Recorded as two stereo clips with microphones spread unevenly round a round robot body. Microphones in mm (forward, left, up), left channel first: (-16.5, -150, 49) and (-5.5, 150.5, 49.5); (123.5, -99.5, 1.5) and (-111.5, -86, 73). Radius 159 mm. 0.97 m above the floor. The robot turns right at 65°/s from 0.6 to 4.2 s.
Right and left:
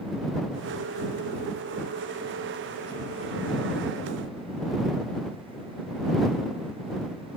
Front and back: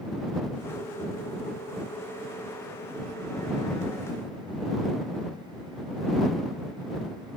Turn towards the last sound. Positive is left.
No sound to turn to.